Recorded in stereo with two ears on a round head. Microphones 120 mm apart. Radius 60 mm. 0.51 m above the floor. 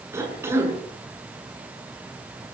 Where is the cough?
20° right (ahead or behind), 7 m.